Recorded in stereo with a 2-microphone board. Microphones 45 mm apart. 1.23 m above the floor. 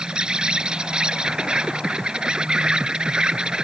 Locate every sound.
0.0 s an insect: 15° right (ahead or behind)